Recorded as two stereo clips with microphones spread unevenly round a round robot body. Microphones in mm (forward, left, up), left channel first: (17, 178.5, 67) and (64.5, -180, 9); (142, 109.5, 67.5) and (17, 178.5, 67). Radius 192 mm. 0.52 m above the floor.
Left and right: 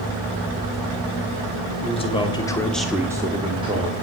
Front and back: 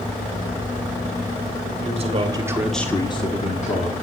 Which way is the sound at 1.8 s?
175° left.